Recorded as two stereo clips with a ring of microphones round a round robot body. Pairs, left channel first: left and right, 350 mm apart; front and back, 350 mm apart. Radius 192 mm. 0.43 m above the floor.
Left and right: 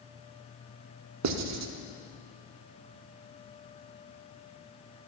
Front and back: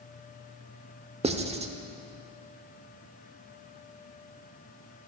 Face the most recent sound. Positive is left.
turn(degrees=-110)